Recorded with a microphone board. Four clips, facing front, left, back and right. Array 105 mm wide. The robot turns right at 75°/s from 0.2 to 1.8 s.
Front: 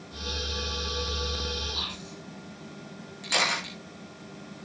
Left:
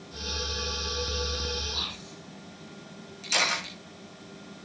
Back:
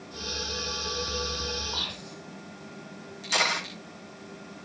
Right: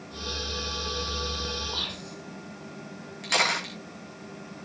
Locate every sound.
1.7 s whispering: 135° right, 6.5 m; by 2.2 s 125° right, 6.5 m
3.2 s a camera shutter: 70° right, 8 m